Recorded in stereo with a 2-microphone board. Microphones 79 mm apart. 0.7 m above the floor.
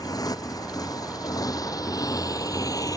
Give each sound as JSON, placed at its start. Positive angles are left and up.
{"t": 0.0, "sound": "a motorcycle", "side_deg": 50}